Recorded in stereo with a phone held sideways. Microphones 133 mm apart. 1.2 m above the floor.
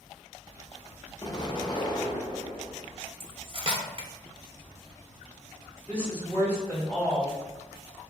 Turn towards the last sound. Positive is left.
turn(degrees=-5)  # may be behind; listen again after turning